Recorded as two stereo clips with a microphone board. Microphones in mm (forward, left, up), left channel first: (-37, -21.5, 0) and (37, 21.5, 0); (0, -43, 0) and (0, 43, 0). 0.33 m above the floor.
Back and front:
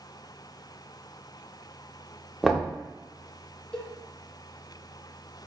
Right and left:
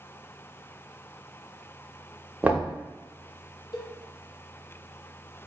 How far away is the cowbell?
About 0.5 m.